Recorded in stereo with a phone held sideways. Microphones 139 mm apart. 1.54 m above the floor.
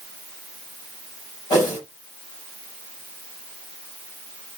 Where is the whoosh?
30° left (ahead or behind), 4.5 m.